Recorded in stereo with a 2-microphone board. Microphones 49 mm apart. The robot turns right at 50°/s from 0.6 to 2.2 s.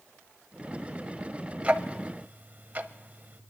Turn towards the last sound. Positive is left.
turn(degrees=-35)  # may be behind; listen again after turning